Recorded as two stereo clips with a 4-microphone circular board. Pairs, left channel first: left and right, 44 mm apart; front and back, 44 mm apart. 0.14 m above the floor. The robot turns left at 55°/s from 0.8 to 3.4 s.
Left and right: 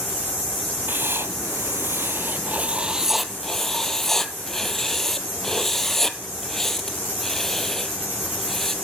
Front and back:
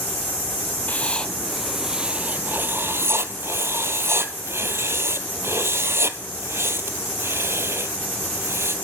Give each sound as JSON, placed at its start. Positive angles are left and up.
{"t": 0.9, "sound": "writing", "azimuth_deg": -50, "distance_m": 0.8}